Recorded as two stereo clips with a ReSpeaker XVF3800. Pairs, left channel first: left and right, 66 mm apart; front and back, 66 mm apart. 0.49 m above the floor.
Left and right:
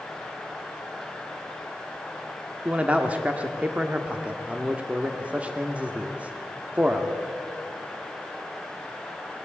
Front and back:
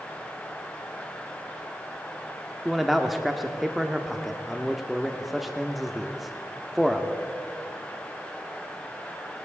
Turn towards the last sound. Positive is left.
turn(degrees=-90)